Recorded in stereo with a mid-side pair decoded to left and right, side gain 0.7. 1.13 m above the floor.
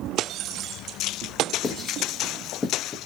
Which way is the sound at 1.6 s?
15° left.